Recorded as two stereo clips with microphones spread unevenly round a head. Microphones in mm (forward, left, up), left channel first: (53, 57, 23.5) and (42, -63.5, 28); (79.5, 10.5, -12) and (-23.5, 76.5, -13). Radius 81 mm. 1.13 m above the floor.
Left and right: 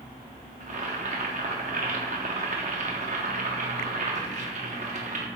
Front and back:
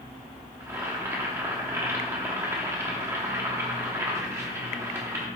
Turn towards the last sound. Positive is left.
turn(degrees=-140)